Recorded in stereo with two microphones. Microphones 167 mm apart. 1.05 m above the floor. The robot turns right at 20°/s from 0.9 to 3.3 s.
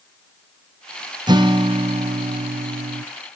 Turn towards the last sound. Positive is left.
turn(degrees=-110)